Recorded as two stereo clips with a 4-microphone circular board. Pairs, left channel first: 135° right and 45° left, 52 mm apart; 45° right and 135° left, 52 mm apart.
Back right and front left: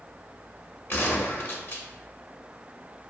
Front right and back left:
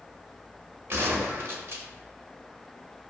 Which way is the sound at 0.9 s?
175° left.